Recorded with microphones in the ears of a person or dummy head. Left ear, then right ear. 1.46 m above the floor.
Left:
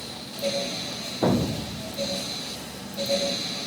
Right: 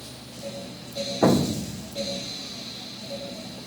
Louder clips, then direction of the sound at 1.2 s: Right 3 dB; 75° right (ahead or behind).